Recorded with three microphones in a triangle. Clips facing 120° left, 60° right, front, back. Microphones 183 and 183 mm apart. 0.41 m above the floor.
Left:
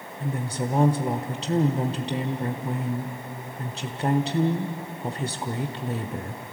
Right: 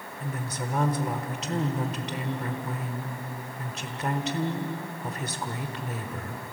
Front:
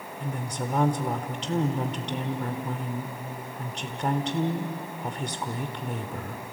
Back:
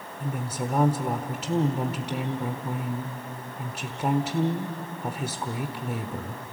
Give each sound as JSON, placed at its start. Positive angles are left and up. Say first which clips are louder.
{"t": 0.2, "sound": "a woman speaking", "louder": "left 6 dB, back 2 dB", "azimuth_deg": 105, "distance_m": 1.0}